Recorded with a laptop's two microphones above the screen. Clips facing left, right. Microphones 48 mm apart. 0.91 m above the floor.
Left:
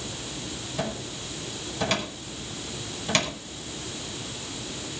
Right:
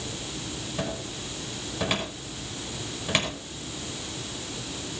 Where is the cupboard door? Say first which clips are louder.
Left 1 dB; 10° right (ahead or behind), 5 m.